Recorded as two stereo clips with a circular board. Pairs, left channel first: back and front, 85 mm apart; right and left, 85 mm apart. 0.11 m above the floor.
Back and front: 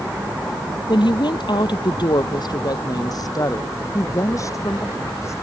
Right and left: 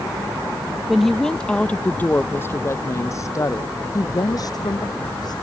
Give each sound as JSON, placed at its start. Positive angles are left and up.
{"t": 0.9, "sound": "a woman speaking", "azimuth_deg": 180}